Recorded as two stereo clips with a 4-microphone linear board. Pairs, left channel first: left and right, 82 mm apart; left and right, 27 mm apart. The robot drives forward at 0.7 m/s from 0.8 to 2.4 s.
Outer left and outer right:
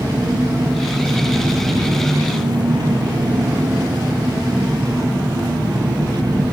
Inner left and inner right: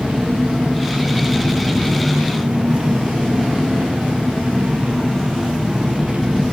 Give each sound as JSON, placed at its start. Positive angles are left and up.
{"t": 0.0, "sound": "an engine running", "side_deg": -55, "distance_m": 6.5}